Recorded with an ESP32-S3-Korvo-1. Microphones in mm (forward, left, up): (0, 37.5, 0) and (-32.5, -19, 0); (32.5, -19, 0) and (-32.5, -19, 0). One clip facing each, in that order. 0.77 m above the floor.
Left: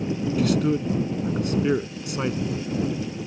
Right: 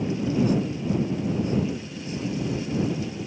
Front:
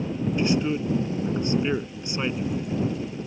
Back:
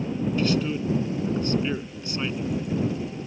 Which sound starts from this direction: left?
A man speaking, at 0.4 s.